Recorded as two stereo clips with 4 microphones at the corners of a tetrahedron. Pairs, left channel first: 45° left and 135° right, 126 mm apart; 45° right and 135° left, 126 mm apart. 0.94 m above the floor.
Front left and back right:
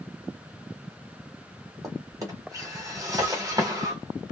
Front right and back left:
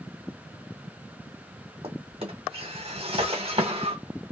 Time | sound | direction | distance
1.8 | a drawer | 170° left | 1.3 m